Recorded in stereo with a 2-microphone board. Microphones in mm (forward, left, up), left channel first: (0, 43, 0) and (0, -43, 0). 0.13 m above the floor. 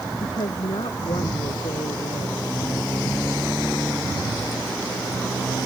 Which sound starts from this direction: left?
A woman speaking, at 0.2 s.